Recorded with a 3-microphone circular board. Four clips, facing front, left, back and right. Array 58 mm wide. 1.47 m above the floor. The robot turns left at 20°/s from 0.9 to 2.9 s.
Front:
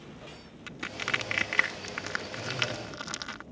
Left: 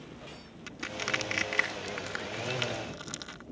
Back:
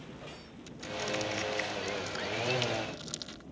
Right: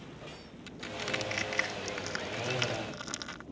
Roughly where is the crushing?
Ahead left.